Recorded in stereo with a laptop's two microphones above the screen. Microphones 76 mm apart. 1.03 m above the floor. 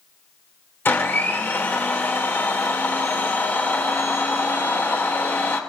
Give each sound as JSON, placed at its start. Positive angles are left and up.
{"t": 0.8, "sound": "a blender", "side_deg": 30, "distance_m": 2.0}